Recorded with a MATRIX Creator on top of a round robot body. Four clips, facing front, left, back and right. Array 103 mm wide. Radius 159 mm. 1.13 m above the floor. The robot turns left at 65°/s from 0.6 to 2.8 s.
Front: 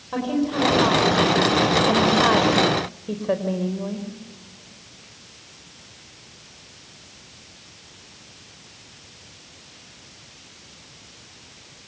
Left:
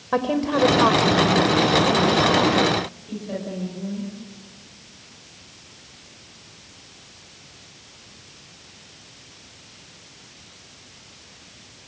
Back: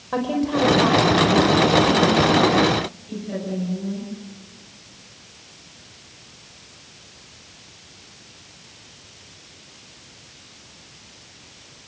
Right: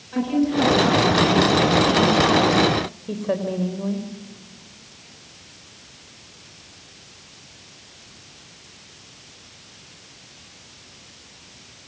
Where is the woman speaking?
105° left, 4.5 m; by 4.1 s 40° right, 4.5 m.